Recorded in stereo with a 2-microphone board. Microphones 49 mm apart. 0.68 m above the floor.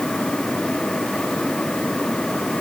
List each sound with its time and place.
Only background noise.